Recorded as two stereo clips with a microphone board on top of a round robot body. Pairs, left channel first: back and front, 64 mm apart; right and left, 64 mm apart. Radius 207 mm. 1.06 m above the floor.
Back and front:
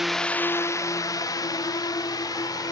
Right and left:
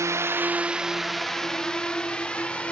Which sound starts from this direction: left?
A drone, at 0.0 s.